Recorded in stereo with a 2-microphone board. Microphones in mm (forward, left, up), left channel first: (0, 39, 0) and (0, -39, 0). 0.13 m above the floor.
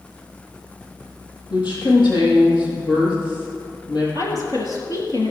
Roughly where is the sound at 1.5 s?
Left.